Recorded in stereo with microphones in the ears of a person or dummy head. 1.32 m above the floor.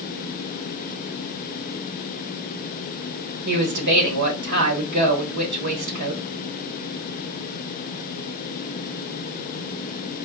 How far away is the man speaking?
About 1.4 m.